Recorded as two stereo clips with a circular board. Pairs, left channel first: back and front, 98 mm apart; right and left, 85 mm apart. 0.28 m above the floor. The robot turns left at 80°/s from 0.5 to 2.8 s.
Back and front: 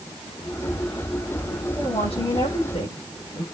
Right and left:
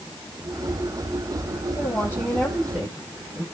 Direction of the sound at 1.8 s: 125° right.